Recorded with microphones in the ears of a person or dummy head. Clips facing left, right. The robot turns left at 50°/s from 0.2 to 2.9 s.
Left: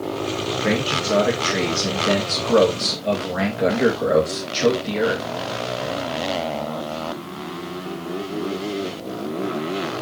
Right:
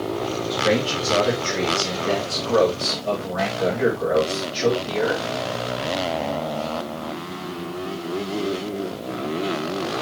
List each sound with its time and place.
0.5 s a man speaking: 155° left, 2 m; by 5.2 s 35° left, 2 m